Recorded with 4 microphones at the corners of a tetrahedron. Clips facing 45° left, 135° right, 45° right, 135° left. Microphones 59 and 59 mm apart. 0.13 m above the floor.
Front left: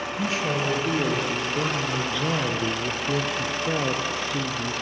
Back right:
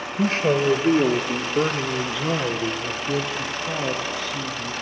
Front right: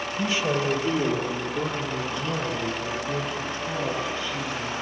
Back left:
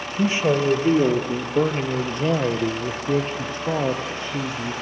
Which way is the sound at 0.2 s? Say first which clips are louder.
Back right 7 dB, back left 6 dB; 170° right.